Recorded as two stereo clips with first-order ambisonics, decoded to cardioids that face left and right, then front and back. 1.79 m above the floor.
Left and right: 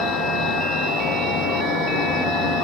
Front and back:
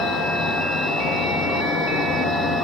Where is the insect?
60° left, 8 m.